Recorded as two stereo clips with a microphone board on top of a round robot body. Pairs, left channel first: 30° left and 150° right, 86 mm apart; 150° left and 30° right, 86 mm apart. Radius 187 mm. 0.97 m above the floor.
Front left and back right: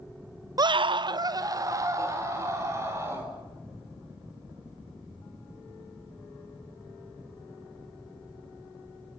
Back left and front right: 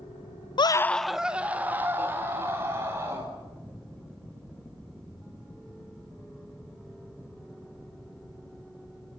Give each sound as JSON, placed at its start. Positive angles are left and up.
{"t": 0.6, "sound": "a scream", "azimuth_deg": 170, "distance_m": 0.5}